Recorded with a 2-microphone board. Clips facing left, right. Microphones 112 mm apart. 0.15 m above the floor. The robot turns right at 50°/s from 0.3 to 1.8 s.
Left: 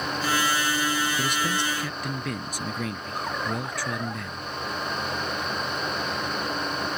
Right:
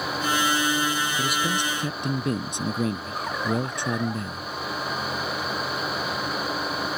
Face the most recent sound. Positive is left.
turn(degrees=-150)